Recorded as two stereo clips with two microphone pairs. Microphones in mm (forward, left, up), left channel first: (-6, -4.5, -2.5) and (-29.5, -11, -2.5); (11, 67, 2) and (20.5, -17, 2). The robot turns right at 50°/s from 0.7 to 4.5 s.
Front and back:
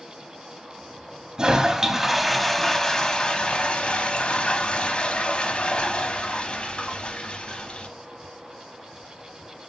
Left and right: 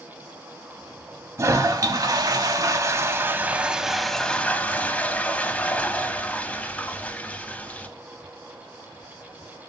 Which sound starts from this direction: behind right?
A toilet flushing, at 1.4 s.